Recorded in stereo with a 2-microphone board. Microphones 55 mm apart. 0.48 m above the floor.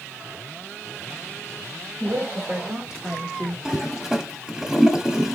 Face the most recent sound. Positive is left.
turn(degrees=-10)  # may be behind; listen again after turning